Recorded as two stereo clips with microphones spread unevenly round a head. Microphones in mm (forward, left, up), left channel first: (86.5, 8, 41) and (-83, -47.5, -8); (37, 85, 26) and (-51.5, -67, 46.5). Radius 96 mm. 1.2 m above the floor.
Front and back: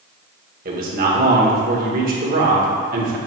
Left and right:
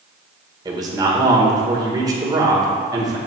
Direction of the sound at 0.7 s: 170° left.